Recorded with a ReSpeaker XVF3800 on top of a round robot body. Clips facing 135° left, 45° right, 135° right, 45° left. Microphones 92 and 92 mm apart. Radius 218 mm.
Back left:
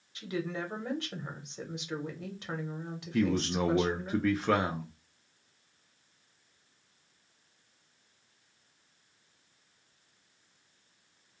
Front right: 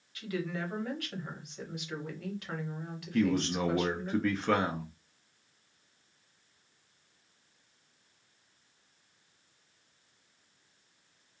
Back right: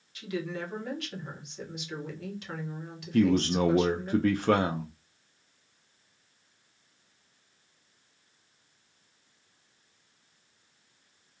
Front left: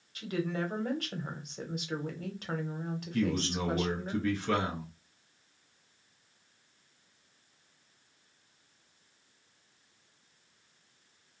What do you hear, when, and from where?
0.1 s a woman speaking: 75° left, 1.2 m
3.1 s a man speaking: 140° right, 0.5 m